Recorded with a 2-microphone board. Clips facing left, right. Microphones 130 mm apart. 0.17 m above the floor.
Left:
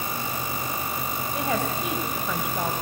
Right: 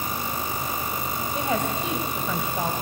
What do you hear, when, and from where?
1.3 s a woman speaking: 10° left (ahead or behind), 4 m